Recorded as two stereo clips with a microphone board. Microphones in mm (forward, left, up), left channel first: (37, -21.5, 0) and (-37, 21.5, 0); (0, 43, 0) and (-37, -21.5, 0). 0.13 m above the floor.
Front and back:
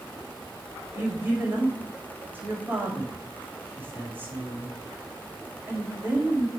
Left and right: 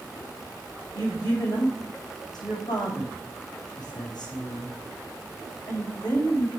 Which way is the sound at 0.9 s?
80° left.